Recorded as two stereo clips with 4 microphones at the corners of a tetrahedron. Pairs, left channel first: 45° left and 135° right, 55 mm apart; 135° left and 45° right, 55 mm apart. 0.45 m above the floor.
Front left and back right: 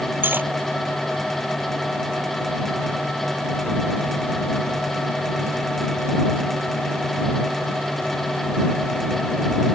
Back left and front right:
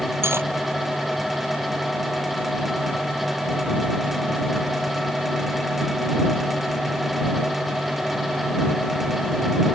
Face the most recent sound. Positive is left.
turn(degrees=-85)